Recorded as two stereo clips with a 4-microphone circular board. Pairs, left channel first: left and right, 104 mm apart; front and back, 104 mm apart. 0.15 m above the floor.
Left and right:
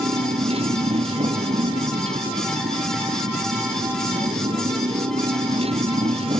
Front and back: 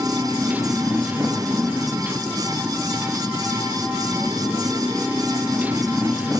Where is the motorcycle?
105° right.